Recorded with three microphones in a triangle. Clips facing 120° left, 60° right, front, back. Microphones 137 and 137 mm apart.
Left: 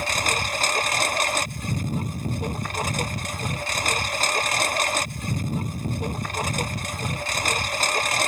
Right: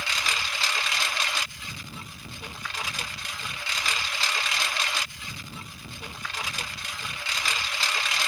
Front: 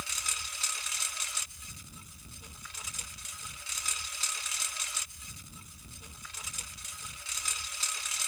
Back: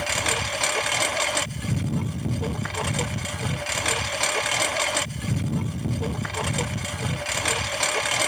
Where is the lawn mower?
165° left.